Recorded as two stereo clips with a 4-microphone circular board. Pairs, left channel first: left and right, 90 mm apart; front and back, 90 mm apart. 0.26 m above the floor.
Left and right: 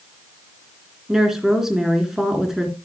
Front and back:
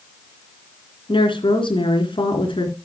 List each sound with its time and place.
1.1 s a woman speaking: 5° right, 3.5 m